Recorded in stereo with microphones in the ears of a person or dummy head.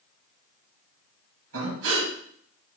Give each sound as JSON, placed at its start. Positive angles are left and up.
{"t": 1.5, "sound": "breathing", "side_deg": -80, "distance_m": 3.5}